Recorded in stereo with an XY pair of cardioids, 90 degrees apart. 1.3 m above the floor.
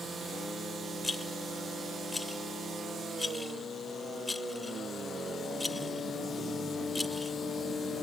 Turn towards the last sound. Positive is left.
turn(degrees=20)